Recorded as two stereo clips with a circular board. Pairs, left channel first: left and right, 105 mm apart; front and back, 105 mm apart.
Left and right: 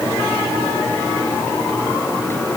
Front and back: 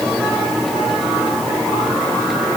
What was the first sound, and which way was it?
Only background noise.